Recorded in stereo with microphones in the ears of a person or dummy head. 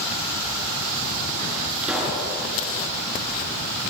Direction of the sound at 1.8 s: 10° right (ahead or behind).